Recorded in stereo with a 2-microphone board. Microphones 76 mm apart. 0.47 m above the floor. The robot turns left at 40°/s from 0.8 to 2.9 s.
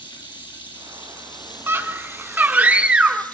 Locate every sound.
0.0 s running water: 105° left, 3 m; by 3.3 s 20° left, 3 m
1.7 s a scream: 30° right (ahead or behind), 1.0 m; by 3.2 s 15° right (ahead or behind), 1.0 m